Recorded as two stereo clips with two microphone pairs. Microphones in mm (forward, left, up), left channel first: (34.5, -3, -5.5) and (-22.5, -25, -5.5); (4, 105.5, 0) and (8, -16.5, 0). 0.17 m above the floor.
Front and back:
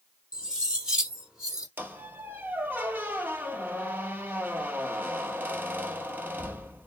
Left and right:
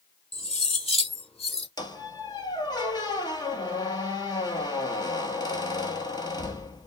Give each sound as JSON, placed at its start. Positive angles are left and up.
{"t": 0.3, "sound": "cutlery clinking", "azimuth_deg": 130, "distance_m": 3.5}
{"t": 1.8, "sound": "a squeak", "azimuth_deg": 145, "distance_m": 1.4}